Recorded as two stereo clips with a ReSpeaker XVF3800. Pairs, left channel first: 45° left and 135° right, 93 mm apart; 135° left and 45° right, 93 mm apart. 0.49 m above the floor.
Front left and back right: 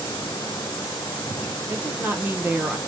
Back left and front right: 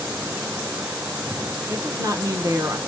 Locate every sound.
1.7 s a woman speaking: 75° right, 1.1 m